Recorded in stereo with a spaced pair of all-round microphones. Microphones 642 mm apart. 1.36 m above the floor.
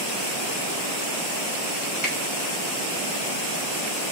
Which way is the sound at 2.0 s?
50° right (ahead or behind).